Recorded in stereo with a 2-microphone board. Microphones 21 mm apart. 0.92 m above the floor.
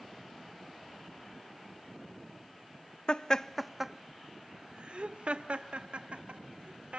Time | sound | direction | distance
3.1 | laughter | 45° left (ahead or behind) | 0.6 m